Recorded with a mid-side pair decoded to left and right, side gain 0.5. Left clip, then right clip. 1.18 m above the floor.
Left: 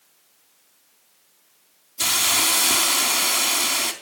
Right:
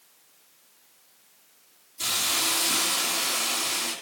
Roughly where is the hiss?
Ahead left.